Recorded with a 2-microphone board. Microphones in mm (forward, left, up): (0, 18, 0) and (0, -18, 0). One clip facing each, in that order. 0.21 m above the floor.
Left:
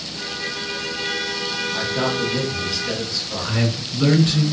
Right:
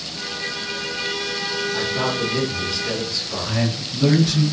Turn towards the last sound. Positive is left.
turn(degrees=50)  # may be behind; listen again after turning